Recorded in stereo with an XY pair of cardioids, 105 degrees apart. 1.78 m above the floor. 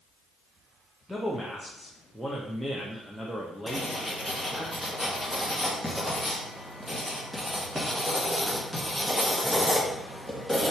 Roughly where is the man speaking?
Ahead.